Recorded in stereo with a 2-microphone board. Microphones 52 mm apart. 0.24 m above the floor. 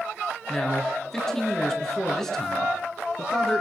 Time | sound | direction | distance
0.5 | a man speaking | 5° left (ahead or behind) | 3.5 m